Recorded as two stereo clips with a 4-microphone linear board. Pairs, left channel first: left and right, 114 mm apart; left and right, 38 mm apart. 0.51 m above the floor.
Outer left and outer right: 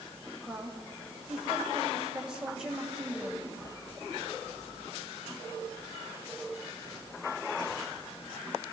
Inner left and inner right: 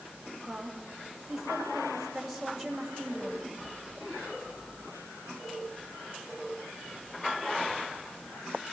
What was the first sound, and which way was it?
A woman speaking, 5° right (ahead or behind).